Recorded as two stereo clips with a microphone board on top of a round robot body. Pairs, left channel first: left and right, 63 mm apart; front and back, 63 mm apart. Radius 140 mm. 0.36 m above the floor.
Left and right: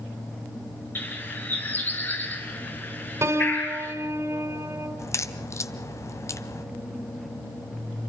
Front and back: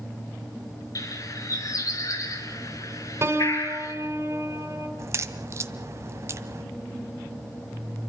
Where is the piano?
135° right, 3.5 m.